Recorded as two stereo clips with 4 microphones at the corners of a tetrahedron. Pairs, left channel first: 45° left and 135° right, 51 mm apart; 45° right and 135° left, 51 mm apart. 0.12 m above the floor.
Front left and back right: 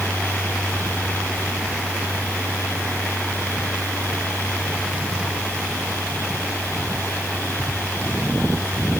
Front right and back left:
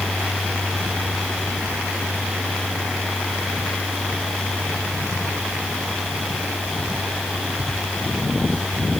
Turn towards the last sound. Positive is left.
No sound to turn to.